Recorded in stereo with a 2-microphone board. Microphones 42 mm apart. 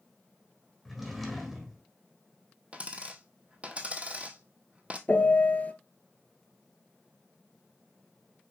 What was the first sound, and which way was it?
A drawer, centre (ahead or behind).